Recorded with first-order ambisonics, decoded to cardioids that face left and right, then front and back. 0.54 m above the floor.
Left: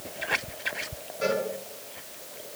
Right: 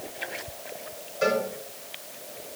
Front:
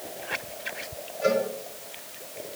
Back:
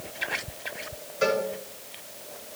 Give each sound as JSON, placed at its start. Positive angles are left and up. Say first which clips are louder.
{"t": 1.2, "sound": "a cowbell", "louder": "right 3 dB, front 1 dB", "azimuth_deg": -170, "distance_m": 6.0}